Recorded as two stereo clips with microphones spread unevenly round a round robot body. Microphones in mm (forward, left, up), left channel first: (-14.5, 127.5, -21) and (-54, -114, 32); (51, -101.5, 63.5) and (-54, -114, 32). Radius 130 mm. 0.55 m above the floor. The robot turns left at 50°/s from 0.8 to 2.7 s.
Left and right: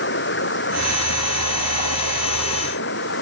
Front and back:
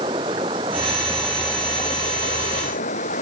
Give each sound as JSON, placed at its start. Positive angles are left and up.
{"t": 0.0, "sound": "running water", "azimuth_deg": 125}